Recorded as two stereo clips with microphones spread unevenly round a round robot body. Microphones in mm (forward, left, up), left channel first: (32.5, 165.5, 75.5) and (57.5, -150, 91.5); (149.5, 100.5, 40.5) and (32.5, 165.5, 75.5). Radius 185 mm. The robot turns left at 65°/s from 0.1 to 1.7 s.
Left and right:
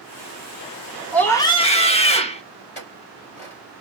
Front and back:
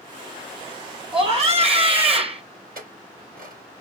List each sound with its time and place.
1.1 s a scream: 175° left, 1.5 m; by 2.4 s 135° left, 1.5 m
2.8 s a clink: 155° left, 3.5 m